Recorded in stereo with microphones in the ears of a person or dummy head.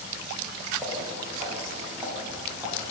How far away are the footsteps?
About 8.5 m.